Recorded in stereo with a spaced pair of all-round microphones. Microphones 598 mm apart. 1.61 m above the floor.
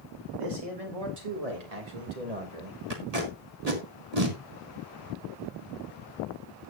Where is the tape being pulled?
75° right (ahead or behind), 2.5 m.